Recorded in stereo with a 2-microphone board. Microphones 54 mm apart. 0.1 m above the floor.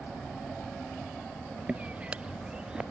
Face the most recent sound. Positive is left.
turn(degrees=-15)  # may be behind; listen again after turning